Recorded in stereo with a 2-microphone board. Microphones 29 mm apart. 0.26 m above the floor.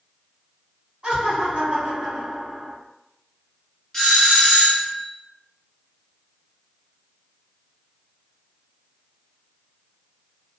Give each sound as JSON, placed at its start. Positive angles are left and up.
{"t": 1.0, "sound": "laughter", "side_deg": -45, "distance_m": 1.6}
{"t": 3.9, "sound": "a doorbell", "side_deg": 10, "distance_m": 1.4}